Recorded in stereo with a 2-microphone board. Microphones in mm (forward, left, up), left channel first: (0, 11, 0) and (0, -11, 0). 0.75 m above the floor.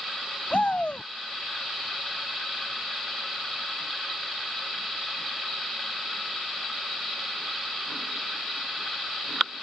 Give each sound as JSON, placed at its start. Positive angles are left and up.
{"t": 0.5, "sound": "a shout", "side_deg": 65}